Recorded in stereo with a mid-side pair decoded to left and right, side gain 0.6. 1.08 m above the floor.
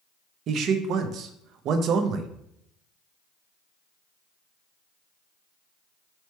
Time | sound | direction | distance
0.5 | a man speaking | 55° right | 0.6 m